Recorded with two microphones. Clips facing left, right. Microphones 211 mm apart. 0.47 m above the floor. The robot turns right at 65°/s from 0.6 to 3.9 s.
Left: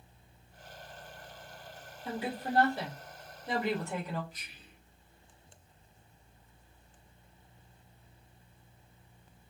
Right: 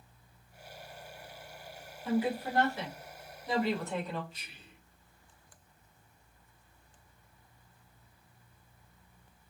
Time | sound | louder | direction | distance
2.0 | a woman speaking | right 5 dB | 40° left | 1.4 m
4.3 | whispering | right 1 dB | 30° right (ahead or behind) | 0.9 m